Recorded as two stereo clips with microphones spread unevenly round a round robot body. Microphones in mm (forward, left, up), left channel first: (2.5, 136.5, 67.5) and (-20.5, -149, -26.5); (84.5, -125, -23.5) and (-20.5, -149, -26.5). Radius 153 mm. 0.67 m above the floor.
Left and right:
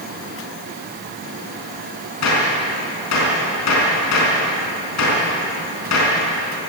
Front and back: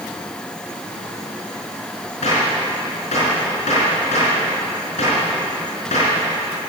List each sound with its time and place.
2.2 s a gunshot: 50° left, 4.5 m